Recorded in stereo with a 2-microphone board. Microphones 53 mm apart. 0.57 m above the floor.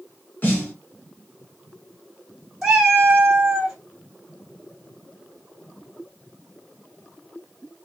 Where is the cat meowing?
10° right (ahead or behind), 1.4 m.